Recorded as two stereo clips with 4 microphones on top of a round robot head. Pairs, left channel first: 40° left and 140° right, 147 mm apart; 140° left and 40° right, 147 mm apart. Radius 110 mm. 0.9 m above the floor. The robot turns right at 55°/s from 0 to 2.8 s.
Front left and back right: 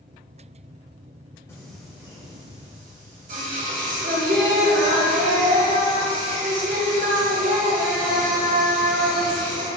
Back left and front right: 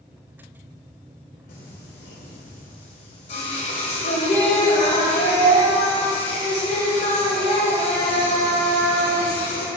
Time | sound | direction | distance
1.5 | singing | 115° left | 1.1 m